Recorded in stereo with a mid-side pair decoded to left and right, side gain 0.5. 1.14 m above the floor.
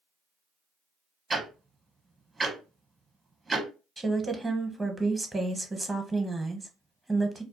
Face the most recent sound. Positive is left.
turn(degrees=-20)